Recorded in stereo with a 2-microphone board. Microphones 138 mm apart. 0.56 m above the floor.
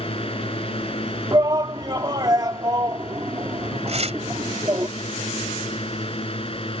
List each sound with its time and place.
0.0 s a drone: 40° left (ahead or behind)
1.3 s a shout: 30° right (ahead or behind)
3.9 s tearing paper: 50° right (ahead or behind)